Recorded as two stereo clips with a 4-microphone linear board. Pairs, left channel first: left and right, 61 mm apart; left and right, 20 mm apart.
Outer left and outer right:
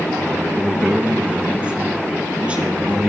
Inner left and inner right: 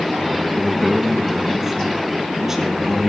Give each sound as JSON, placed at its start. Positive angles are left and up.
{"t": 0.6, "sound": "a man speaking", "side_deg": -20, "distance_m": 2.5}